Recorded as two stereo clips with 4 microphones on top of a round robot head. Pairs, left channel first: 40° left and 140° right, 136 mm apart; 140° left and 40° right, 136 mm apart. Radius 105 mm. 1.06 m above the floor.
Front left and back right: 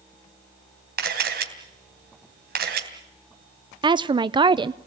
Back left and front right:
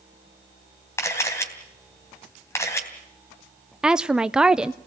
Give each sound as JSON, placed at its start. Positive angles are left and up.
{"t": 1.0, "sound": "a camera shutter", "azimuth_deg": -150, "distance_m": 3.0}
{"t": 3.8, "sound": "a woman speaking", "azimuth_deg": -120, "distance_m": 0.6}